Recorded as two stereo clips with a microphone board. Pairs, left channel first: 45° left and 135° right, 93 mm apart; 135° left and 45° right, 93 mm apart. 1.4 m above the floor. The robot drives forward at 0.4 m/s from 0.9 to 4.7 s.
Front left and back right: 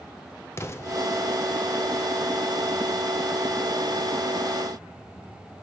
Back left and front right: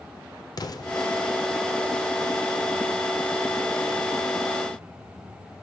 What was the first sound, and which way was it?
An explosion, 100° left.